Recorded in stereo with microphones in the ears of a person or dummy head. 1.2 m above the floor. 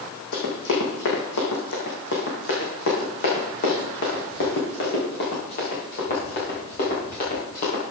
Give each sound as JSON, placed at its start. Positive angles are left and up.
{"t": 0.3, "sound": "running footsteps", "side_deg": 70, "distance_m": 4.0}